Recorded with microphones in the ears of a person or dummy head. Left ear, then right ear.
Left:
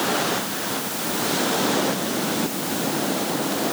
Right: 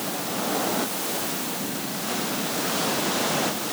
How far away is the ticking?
No ticking in this recording.